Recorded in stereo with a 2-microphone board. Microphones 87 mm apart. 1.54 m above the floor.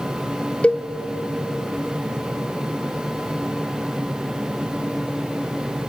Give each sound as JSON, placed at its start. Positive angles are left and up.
{"t": 0.6, "sound": "a cowbell", "side_deg": 15, "distance_m": 0.6}